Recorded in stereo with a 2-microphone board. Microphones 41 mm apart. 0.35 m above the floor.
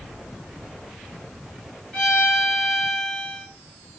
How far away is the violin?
About 1.6 m.